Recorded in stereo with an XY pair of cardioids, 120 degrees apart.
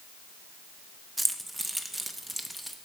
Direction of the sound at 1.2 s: 10° right.